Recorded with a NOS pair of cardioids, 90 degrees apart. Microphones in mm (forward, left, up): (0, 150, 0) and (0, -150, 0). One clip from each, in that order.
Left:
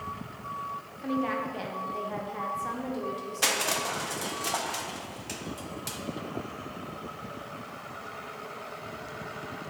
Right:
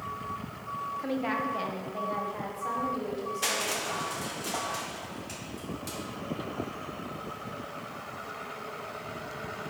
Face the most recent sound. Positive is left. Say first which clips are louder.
# left 4 dB
turn(degrees=40)